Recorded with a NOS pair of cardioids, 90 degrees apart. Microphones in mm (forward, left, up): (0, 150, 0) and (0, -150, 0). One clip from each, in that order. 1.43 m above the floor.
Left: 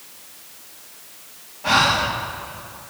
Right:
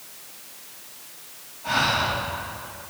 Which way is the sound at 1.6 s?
70° left.